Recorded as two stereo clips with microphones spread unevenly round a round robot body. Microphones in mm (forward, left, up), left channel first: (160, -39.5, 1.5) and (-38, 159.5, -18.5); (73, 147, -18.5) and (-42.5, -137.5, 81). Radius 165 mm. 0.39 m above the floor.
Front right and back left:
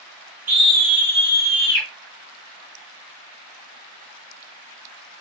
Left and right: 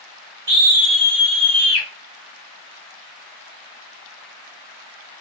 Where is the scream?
155° right, 1.3 m; by 1.9 s 25° left, 1.7 m.